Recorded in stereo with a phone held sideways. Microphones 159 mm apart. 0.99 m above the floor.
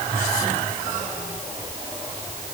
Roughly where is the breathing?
I don't hear breathing.